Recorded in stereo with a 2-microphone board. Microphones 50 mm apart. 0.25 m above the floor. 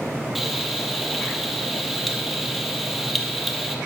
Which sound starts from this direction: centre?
Frying, at 0.3 s.